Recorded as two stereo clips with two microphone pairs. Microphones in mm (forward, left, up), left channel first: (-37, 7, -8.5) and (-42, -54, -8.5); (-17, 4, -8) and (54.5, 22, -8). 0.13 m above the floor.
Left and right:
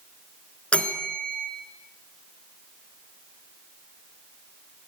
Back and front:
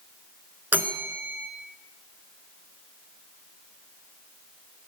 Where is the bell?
40° left, 0.7 m.